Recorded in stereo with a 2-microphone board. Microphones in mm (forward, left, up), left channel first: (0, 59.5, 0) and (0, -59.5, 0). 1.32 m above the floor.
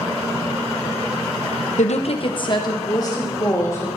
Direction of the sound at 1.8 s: 85° left.